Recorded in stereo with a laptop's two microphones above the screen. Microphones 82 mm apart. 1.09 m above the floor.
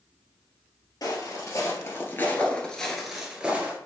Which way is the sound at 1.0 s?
50° left (ahead or behind).